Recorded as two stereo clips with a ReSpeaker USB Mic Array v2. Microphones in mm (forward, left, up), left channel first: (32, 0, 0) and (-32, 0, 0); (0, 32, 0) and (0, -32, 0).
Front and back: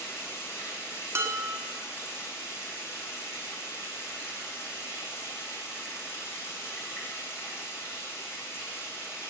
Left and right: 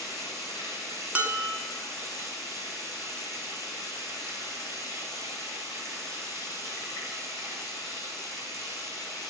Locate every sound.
0.0 s running water: 50° right, 6.5 m
1.1 s dishes clattering: 155° right, 1.2 m